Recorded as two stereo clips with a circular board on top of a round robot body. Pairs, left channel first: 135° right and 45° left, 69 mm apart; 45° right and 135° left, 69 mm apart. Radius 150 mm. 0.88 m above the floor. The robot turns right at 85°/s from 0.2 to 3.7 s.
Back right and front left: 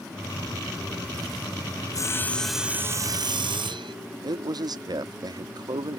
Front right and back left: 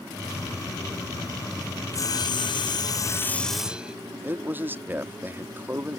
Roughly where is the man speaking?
Left.